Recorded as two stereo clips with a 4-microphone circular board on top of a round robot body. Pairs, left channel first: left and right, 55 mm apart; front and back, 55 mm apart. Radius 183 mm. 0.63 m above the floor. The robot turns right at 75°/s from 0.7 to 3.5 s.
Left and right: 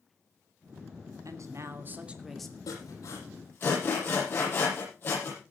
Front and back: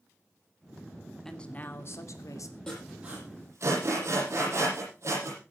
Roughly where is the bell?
No bell in this recording.